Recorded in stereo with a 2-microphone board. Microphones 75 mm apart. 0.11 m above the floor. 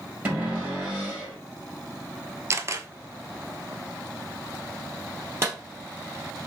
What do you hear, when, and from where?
0.2 s a cupboard door: 25° right (ahead or behind), 2.5 m
2.5 s a camera shutter: 40° right (ahead or behind), 0.6 m
5.4 s a clap: 35° right (ahead or behind), 2.5 m